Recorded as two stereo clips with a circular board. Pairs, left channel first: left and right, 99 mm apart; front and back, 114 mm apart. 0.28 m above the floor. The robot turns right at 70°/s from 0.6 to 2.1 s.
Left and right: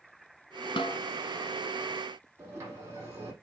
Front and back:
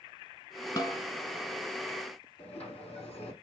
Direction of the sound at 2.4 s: 30° right.